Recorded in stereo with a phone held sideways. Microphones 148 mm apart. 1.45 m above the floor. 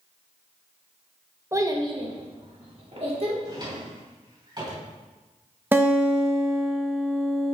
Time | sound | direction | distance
1.5 | a child speaking | 20° right (ahead or behind) | 0.8 m
3.5 | a drawer | 30° right (ahead or behind) | 3 m
5.7 | a guitar | 15° right (ahead or behind) | 0.9 m